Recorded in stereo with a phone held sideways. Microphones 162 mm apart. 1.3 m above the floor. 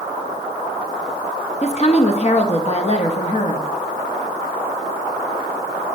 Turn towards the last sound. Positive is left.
turn(degrees=40)  # may be behind; listen again after turning